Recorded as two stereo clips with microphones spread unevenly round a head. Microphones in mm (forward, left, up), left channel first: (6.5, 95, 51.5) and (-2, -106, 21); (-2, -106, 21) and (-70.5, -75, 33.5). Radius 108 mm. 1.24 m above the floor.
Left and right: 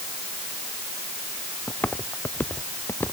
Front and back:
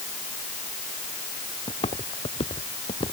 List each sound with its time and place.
1.7 s footsteps: 5° left